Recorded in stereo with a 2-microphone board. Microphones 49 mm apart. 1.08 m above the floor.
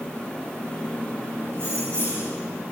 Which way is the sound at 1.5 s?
60° right (ahead or behind).